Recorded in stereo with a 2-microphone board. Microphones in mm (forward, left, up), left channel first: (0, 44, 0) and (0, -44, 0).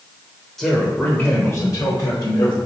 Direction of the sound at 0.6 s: 5° left (ahead or behind).